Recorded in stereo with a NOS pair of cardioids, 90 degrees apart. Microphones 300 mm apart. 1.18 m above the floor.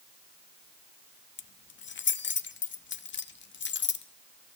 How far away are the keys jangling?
About 1.0 m.